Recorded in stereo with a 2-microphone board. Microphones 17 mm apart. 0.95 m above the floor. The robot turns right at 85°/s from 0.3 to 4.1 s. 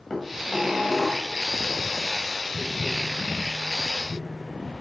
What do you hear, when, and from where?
0.1 s dishes clattering: 150° left, 3.5 m; by 1.3 s 130° right, 3.5 m
2.5 s tapping: 75° left (ahead or behind), 5.5 m; by 4.7 s 55° right (ahead or behind), 5.5 m